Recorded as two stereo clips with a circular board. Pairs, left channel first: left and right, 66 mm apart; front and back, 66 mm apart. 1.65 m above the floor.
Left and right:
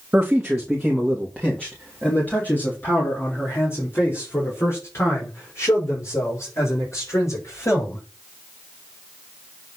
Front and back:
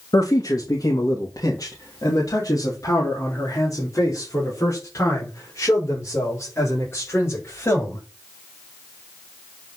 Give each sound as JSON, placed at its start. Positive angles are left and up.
{"t": 0.1, "sound": "a man speaking", "azimuth_deg": -10, "distance_m": 2.0}